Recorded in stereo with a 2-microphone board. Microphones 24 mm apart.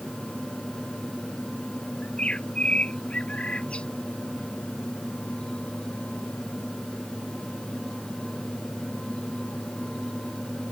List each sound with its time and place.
2.0 s a bird: 55° left (ahead or behind)